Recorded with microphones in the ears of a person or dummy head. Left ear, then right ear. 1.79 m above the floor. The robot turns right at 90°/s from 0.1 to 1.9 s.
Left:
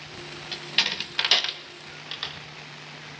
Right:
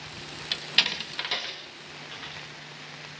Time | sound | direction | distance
0.5 | a door slam | 25° right (ahead or behind) | 2.0 m